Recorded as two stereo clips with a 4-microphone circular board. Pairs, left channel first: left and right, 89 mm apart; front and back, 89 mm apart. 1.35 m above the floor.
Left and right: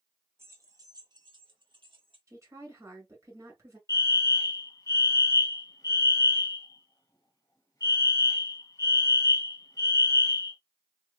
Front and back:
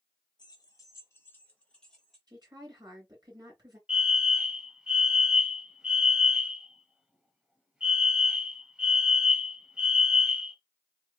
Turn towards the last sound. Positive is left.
turn(degrees=105)